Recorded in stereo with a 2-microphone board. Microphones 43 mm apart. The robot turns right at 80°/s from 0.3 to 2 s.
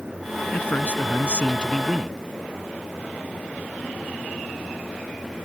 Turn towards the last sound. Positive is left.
turn(degrees=180)